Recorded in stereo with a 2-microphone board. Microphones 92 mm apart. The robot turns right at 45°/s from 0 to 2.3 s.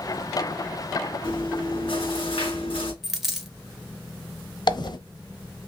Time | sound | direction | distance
1.2 | chewing | 60° left | 3 m
3.0 | a dropped coin | centre (ahead or behind) | 1.0 m
4.7 | a dropped coin | 55° left (ahead or behind) | 0.9 m